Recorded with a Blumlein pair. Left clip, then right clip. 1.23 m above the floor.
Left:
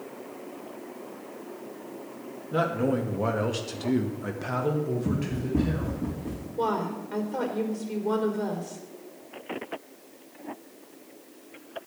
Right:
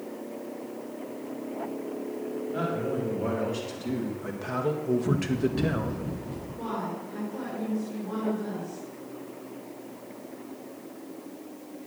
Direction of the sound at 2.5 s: 45° left.